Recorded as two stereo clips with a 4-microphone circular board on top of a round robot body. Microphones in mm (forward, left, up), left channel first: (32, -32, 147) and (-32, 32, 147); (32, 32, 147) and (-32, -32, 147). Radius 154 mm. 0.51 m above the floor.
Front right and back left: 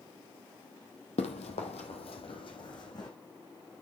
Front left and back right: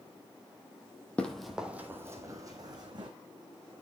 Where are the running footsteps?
35° right, 1.3 m; by 3.1 s 90° right, 2.5 m.